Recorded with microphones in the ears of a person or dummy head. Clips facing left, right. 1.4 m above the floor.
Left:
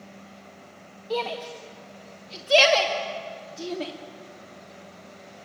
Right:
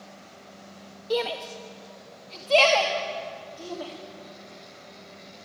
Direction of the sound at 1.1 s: 20° right (ahead or behind).